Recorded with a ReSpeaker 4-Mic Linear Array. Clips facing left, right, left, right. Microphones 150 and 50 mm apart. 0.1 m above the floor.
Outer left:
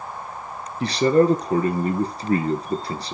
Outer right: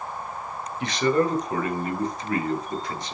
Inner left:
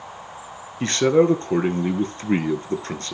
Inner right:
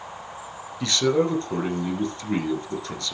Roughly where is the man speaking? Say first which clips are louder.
Outer left 5 dB, inner left 5 dB; left.